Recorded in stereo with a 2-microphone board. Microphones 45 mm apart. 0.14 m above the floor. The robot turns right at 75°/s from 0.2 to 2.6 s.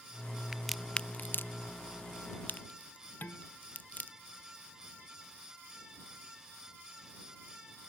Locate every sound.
0.5 s a crack: 10° right (ahead or behind); by 4.1 s 35° left (ahead or behind)
3.2 s dishes clattering: 45° left (ahead or behind)